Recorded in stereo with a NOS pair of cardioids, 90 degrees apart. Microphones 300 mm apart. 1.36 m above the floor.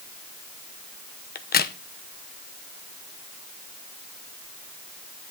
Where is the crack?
30° left, 0.8 m.